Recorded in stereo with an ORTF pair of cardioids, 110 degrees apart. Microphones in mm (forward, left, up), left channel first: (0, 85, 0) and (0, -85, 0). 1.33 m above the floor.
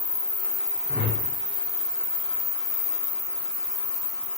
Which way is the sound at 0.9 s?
50° left.